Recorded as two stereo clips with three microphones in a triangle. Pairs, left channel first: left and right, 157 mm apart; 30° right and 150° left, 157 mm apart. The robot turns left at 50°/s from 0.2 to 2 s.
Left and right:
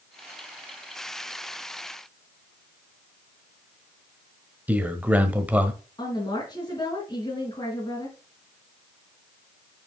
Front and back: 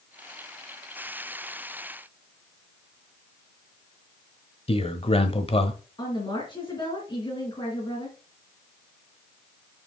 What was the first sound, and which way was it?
A man speaking, 15° right.